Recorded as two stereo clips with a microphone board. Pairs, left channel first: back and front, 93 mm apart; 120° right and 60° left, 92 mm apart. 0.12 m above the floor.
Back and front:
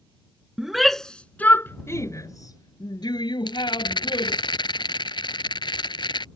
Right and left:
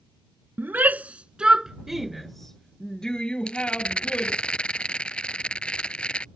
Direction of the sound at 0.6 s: 75° left.